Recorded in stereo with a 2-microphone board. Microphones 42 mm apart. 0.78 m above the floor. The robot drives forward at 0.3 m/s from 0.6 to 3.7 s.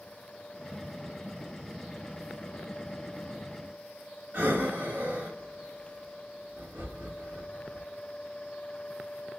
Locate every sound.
4.3 s breathing: 55° right (ahead or behind), 1.2 m